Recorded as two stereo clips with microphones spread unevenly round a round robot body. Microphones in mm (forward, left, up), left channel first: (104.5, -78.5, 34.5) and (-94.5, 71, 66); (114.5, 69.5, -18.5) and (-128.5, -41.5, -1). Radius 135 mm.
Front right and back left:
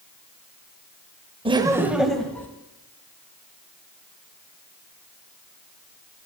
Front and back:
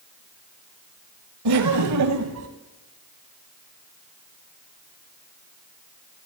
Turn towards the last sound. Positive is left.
turn(degrees=-120)